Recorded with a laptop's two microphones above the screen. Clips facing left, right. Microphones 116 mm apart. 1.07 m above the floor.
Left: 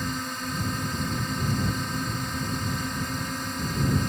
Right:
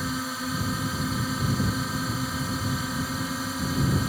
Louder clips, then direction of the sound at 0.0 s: Right 1 dB; 5° right (ahead or behind).